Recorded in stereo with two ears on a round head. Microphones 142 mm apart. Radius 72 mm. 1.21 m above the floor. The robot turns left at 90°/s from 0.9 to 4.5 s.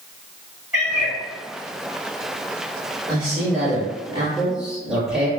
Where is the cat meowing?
5° right (ahead or behind), 1.5 m; by 1.2 s 15° left (ahead or behind), 1.5 m.